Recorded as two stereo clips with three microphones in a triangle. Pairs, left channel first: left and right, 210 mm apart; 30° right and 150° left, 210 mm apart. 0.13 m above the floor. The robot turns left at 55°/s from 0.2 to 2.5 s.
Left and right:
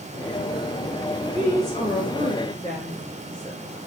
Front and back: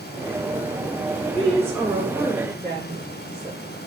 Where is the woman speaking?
110° left, 1.9 m; by 3.8 s 40° left, 1.9 m.